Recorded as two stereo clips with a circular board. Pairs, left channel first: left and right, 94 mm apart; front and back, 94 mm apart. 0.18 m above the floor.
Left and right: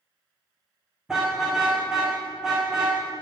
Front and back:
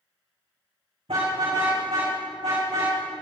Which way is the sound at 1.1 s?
175° right.